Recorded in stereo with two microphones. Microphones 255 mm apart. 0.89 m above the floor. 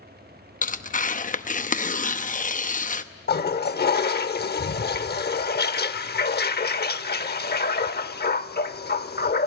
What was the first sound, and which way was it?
Tearing paper, 30° left (ahead or behind).